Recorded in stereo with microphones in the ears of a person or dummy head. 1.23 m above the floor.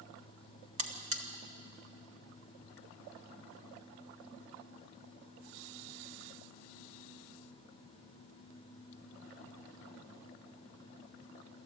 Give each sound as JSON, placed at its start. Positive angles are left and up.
{"t": 0.8, "sound": "a buzzer", "side_deg": -35, "distance_m": 1.5}